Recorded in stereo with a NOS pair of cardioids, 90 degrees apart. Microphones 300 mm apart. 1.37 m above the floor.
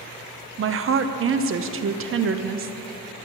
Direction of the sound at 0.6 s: 45° right.